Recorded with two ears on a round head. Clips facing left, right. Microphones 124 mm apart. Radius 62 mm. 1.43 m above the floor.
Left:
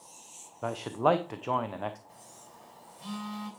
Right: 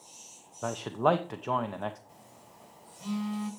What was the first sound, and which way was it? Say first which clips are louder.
A man speaking: even; 5° left (ahead or behind).